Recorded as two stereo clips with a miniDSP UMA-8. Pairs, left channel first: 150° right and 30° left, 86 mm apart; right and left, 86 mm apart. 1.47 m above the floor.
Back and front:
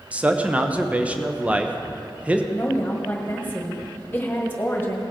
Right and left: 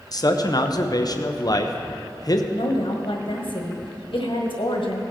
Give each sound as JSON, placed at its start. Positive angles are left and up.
{"t": 0.1, "sound": "a man speaking", "azimuth_deg": -45, "distance_m": 0.8}
{"t": 2.5, "sound": "a woman speaking", "azimuth_deg": -85, "distance_m": 1.7}